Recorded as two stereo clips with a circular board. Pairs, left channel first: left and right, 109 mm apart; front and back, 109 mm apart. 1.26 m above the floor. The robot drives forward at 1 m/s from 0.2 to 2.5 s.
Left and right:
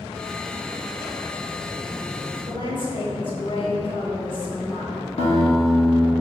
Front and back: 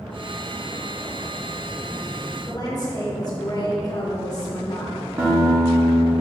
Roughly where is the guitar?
Behind left.